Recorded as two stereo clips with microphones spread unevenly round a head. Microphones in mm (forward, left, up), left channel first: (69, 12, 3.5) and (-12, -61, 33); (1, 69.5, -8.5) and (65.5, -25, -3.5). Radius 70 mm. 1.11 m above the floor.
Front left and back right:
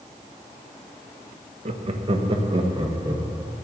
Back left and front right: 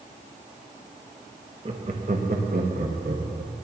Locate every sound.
1.6 s laughter: 110° right, 0.9 m; by 3.5 s 80° right, 1.6 m